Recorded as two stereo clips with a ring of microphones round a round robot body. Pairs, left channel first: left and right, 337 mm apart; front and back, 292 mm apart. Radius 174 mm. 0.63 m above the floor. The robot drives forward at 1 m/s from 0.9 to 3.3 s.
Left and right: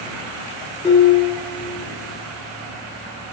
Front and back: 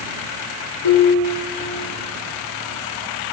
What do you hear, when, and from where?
0.8 s dishes clattering: 15° left, 5.5 m; by 1.9 s 20° left, 4.5 m